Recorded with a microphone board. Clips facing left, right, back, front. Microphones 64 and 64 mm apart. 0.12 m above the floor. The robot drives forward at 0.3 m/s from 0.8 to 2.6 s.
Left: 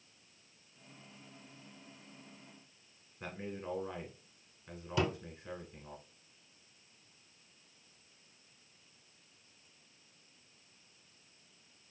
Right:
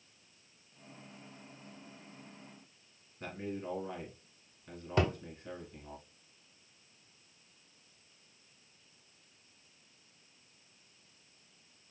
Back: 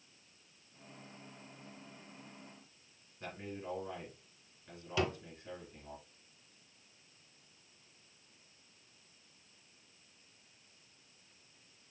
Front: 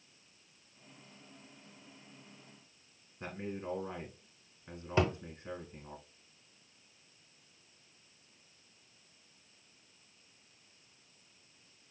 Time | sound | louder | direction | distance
3.2 | a man speaking | right 2 dB, front 3 dB | 20° left | 1.8 m
5.0 | a thud | right 2 dB, front 4 dB | 55° right | 1.3 m